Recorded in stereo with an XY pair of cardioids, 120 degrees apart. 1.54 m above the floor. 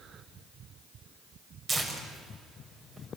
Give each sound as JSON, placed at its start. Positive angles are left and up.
{"t": 1.7, "sound": "tearing paper", "azimuth_deg": -30, "distance_m": 5.5}